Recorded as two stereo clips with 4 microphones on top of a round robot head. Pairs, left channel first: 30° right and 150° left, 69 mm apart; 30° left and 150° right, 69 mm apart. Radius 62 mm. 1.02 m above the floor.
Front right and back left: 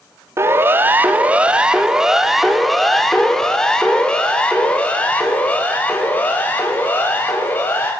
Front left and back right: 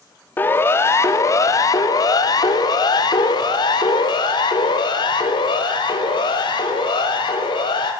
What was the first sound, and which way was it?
A siren, 95° left.